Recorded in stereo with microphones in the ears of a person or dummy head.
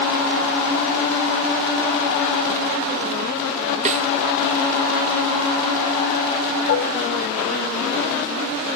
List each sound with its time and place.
3.9 s a snare drum: 40° right (ahead or behind)
6.7 s dishes clattering: 55° left (ahead or behind)